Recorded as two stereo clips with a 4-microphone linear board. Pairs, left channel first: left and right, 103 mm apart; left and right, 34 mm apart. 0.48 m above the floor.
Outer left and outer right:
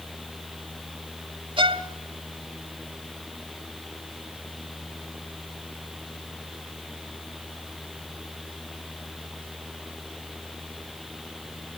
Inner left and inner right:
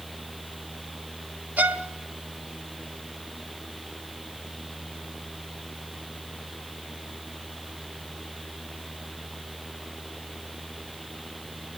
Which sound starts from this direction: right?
A violin, at 1.6 s.